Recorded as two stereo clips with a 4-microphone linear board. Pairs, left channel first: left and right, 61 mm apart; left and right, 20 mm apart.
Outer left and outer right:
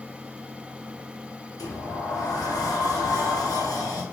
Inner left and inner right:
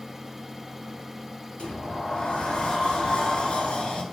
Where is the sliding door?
80° left, 0.6 m.